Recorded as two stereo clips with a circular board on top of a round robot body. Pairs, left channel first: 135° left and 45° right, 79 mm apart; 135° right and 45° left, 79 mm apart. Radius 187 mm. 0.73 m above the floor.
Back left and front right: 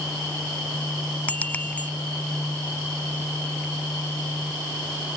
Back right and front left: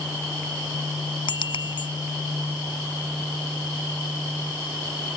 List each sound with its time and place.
1.3 s a bicycle bell: 150° right